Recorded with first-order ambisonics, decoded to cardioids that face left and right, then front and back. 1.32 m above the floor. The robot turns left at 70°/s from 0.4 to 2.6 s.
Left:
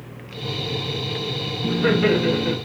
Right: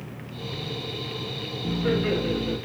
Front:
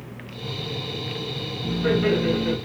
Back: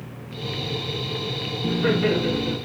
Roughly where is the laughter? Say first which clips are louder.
Left 6 dB, even; behind left.